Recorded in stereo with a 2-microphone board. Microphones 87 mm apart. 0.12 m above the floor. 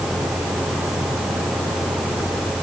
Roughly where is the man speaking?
I don't hear a man speaking.